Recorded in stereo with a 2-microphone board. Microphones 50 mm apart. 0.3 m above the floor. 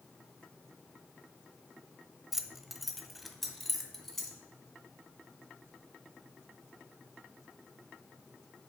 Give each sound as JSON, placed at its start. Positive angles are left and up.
{"t": 2.3, "sound": "keys jangling", "side_deg": -10, "distance_m": 0.6}